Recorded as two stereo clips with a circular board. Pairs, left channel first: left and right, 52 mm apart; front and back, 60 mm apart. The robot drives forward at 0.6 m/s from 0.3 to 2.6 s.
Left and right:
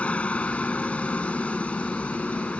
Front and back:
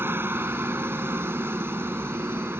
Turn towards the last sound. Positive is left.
turn(degrees=150)